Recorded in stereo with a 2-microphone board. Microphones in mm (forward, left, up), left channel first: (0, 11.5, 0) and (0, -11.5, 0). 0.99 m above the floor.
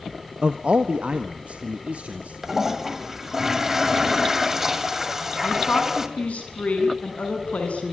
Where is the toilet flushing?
20° right (ahead or behind), 2 m.